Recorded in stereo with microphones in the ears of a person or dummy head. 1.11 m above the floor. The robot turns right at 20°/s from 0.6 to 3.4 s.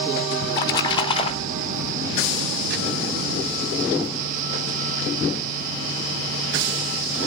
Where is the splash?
15° left (ahead or behind), 2.5 m; by 1.9 s 40° left (ahead or behind), 2.5 m.